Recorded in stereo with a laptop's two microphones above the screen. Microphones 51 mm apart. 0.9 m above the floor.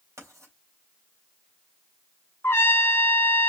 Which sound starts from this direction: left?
A trumpet, at 2.4 s.